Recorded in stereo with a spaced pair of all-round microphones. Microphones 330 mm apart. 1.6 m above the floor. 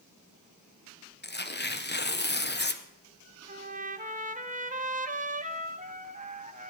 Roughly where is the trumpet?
Right.